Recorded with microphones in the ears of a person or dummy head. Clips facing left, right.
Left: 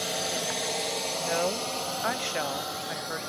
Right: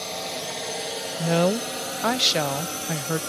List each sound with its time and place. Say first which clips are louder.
0.0 s a drone: even; 10° left (ahead or behind); by 3.3 s 40° right (ahead or behind)
1.2 s a woman speaking: right 9 dB; 55° right (ahead or behind)